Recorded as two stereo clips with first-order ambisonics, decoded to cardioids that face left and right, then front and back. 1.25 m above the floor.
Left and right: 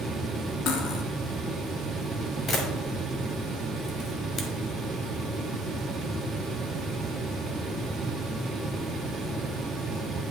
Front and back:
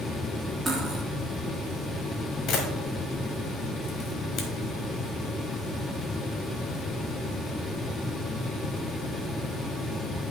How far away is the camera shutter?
About 1.3 m.